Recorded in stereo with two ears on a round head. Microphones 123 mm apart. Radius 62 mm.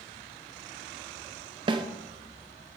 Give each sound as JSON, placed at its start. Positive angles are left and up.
{"t": 1.7, "sound": "a snare drum", "side_deg": -35, "distance_m": 0.9}